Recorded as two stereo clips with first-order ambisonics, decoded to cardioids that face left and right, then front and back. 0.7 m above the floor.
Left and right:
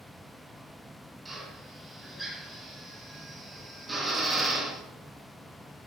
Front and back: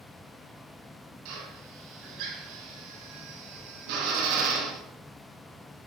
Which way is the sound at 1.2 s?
165° right.